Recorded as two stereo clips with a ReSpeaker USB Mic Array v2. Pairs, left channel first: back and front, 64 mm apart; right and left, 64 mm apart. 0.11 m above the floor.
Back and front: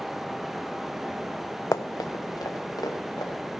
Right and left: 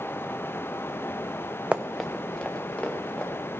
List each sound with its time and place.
1.7 s running footsteps: 160° left, 0.6 m; by 3.3 s 160° right, 2.5 m